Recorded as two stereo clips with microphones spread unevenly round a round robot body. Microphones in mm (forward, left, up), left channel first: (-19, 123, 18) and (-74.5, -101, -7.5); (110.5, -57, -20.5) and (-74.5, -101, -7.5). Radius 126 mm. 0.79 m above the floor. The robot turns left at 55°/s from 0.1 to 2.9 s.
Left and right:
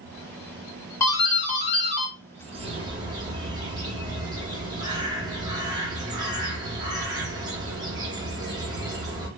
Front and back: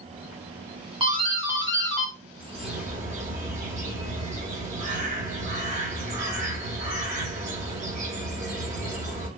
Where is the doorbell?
155° left, 1.4 m; by 2.1 s 90° left, 1.4 m.